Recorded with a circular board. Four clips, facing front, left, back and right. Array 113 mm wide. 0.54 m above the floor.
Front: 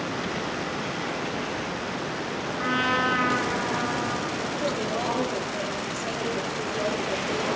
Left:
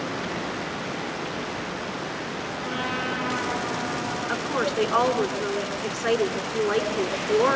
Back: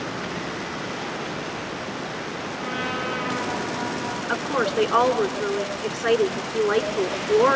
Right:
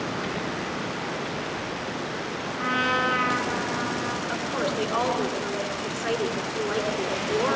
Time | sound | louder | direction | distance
2.6 | a trumpet | right 6 dB, front 5 dB | 45° right | 8.5 m
4.3 | a woman speaking | left 3 dB, back 4 dB | 155° left | 5.5 m